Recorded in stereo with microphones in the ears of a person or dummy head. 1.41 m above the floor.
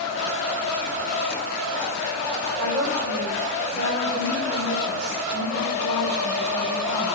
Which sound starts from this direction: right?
A woman speaking, at 2.6 s.